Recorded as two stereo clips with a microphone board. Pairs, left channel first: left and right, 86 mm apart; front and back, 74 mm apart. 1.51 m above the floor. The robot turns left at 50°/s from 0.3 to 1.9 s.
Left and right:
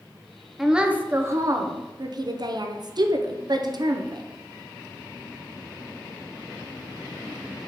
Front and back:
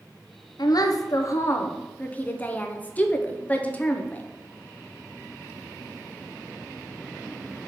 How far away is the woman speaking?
About 0.5 m.